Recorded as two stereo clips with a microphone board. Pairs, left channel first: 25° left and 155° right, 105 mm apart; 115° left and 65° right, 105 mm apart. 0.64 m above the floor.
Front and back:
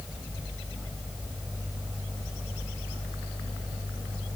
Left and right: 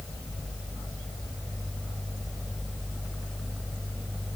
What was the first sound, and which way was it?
Only background noise.